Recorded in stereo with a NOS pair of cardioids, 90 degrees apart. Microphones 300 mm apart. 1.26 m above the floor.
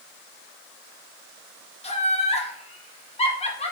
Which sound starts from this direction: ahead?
Laughter, at 1.8 s.